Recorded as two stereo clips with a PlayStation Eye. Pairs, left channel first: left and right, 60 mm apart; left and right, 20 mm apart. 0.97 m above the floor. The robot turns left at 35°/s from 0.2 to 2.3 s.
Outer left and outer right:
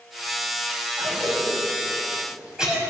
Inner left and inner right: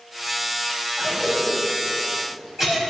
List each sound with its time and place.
1.0 s a cough: 60° right (ahead or behind), 5 m; by 2.8 s 10° right (ahead or behind), 5 m